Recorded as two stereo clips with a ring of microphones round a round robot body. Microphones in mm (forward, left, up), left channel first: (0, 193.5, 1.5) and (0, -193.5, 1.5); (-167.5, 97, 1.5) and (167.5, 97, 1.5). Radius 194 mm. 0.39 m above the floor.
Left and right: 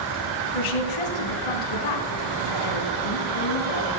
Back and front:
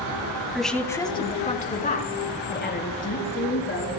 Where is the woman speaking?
90° left, 2.5 m; by 3.9 s 125° left, 6.5 m.